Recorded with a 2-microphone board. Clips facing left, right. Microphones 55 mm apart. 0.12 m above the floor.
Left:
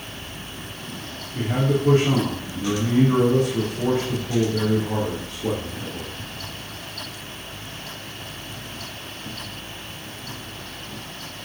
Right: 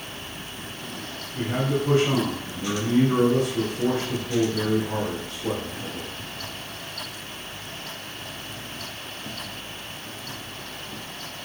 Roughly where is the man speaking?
Left.